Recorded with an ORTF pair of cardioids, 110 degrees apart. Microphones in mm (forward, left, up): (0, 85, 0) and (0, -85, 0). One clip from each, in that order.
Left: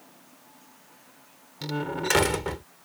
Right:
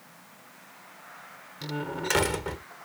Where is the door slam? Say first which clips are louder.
Left 3 dB; 20° left.